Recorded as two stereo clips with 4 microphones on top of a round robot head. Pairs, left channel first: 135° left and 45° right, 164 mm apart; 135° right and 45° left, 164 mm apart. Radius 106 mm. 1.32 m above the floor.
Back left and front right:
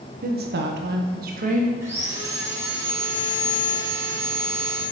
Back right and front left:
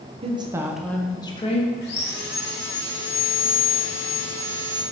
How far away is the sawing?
About 2.5 m.